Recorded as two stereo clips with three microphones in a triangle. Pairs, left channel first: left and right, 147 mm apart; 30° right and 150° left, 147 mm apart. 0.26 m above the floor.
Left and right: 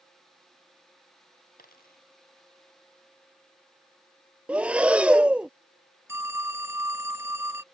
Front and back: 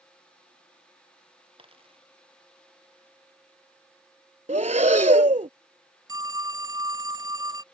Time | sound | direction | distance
1.6 | a dropped coin | 100° left | ?
4.5 | breathing | 170° right | ?
6.1 | a phone ringing | 155° right | ?